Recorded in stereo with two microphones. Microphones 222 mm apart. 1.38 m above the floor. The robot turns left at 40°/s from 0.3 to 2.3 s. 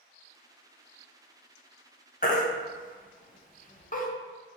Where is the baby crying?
40° left (ahead or behind), 0.5 m; by 4.1 s 35° left (ahead or behind), 0.5 m.